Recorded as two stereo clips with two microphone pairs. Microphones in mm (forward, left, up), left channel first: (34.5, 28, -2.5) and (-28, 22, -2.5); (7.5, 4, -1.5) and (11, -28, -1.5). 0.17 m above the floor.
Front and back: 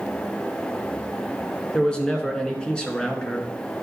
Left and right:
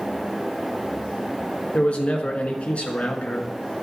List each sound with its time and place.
1.7 s a man speaking: 75° left, 1.6 m